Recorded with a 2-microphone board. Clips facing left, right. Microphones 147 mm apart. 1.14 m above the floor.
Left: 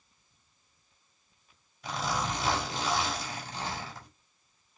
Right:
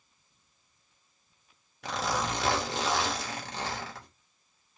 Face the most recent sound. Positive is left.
turn(degrees=-75)  # may be behind; listen again after turning